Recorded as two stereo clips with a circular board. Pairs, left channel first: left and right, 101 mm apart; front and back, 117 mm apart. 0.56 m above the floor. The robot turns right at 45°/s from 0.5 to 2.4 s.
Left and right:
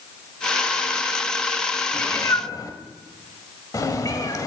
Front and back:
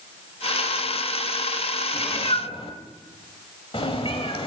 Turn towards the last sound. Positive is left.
turn(degrees=35)